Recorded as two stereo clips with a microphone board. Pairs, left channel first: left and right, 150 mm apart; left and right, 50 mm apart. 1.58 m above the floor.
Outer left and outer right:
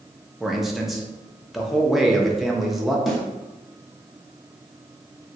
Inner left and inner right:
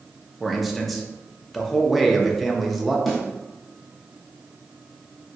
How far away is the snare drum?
About 0.9 m.